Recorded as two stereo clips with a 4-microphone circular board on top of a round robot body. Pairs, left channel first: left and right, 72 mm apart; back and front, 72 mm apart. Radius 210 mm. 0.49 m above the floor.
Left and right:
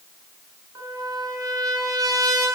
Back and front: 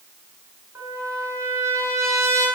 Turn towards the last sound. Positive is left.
turn(degrees=-50)